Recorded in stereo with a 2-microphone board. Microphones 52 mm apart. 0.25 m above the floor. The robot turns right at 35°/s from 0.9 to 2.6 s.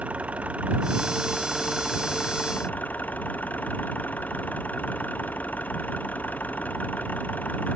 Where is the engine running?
25° right; by 7.8 s 35° left.